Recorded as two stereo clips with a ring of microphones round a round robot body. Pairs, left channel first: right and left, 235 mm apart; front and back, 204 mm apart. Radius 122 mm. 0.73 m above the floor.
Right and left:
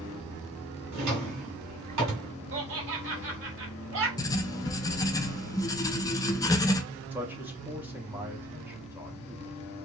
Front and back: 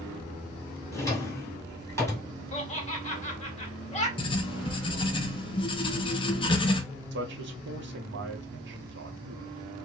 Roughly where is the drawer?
Left.